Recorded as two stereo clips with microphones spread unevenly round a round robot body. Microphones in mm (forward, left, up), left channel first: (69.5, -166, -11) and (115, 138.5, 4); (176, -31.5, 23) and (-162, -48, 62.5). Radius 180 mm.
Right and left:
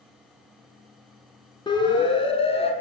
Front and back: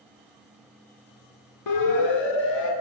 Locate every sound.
1.7 s a siren: 25° right, 6.5 m; by 2.7 s 30° right, 6.5 m